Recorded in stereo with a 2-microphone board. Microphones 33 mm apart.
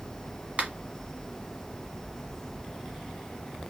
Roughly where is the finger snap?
Right.